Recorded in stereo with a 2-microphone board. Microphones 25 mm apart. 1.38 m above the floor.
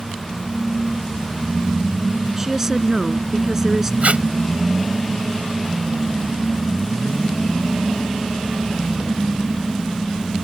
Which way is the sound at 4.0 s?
65° right (ahead or behind).